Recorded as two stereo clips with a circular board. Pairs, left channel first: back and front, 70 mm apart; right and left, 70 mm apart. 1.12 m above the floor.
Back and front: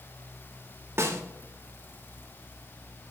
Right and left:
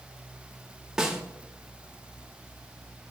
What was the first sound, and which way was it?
A snare drum, 15° left.